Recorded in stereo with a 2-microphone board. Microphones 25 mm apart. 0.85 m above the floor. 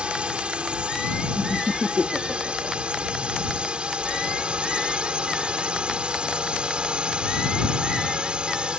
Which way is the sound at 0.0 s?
45° right (ahead or behind).